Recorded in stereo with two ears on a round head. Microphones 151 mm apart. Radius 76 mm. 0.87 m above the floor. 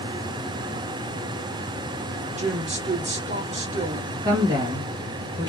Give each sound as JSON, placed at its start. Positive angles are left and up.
{"t": 2.4, "sound": "a woman speaking", "side_deg": -45, "distance_m": 1.4}
{"t": 4.2, "sound": "a woman speaking", "side_deg": -25, "distance_m": 1.4}